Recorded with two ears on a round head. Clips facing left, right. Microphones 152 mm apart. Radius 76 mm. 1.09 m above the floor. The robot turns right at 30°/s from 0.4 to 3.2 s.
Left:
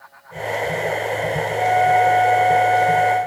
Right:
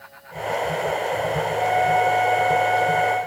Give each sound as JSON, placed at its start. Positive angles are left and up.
{"t": 1.6, "sound": "a flute", "azimuth_deg": 175, "distance_m": 2.5}